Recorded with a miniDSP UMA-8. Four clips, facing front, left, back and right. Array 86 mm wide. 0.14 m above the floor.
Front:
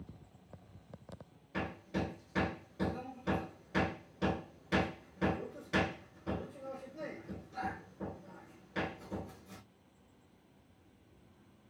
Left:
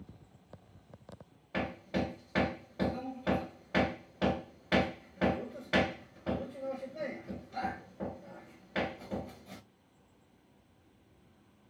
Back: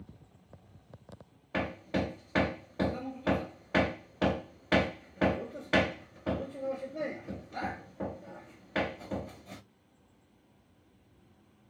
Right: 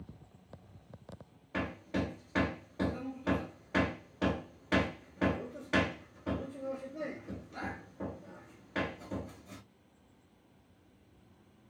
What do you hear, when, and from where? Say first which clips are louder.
1.5 s hammering: left 1 dB, back 6 dB; 170° left, 0.7 m